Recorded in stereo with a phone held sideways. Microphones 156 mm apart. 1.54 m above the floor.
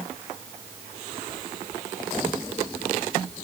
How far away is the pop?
I don't hear a pop.